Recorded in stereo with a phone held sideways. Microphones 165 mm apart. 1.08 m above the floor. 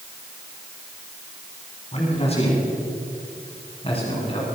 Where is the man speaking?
40° left (ahead or behind), 9 m; by 4.5 s 35° left (ahead or behind), 8.5 m.